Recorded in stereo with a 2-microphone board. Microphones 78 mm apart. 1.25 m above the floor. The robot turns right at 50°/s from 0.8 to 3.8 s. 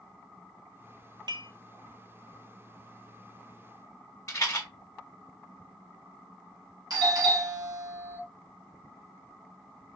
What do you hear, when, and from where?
1.3 s dishes clattering: 70° right (ahead or behind), 0.7 m; by 1.5 s 60° right (ahead or behind), 0.7 m
4.3 s a rattle: 40° left (ahead or behind), 1.7 m
6.9 s a doorbell: 60° right (ahead or behind), 2.5 m